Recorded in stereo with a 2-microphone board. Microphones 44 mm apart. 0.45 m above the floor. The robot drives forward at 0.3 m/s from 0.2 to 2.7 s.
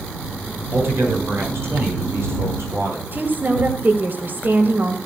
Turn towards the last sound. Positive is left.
turn(degrees=-45)  # may be behind; listen again after turning